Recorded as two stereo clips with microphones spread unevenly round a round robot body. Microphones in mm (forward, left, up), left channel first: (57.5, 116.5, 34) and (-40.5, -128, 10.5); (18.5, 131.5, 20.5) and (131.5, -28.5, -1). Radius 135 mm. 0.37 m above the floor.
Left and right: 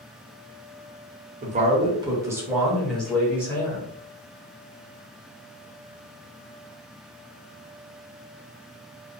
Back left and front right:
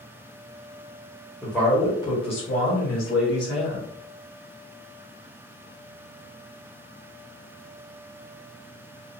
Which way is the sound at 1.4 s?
135° right.